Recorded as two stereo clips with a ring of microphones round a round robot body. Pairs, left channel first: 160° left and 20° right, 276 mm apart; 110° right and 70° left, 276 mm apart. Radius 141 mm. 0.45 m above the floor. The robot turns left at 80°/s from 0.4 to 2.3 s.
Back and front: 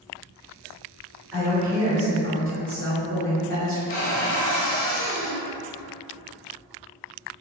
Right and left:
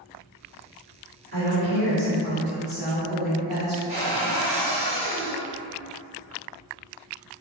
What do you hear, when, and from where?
1.3 s a woman speaking: 60° left, 1.6 m; by 3.8 s 20° right, 1.6 m
3.9 s a cupboard door: 120° left, 0.8 m